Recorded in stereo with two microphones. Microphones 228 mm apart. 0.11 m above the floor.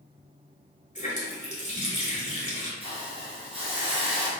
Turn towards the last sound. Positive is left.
turn(degrees=-25)  # may be behind; listen again after turning